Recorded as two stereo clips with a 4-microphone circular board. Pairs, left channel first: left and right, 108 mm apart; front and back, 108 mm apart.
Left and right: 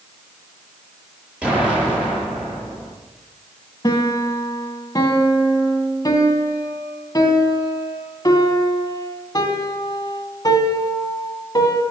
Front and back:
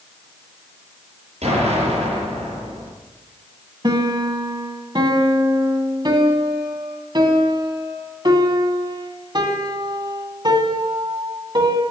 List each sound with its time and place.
1.4 s an explosion: 170° right, 8 m
3.8 s a piano: 140° left, 1.8 m